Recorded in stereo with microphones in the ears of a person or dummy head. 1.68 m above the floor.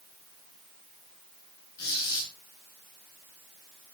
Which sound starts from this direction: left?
A squeak, at 1.8 s.